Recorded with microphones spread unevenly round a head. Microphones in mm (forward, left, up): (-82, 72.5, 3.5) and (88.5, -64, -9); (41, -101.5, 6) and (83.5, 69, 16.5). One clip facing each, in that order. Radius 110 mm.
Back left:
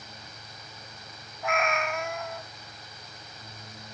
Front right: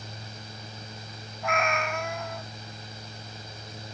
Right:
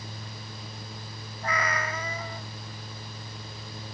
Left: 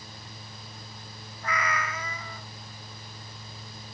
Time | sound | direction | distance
1.4 | a cat meowing | 135° right | 0.7 m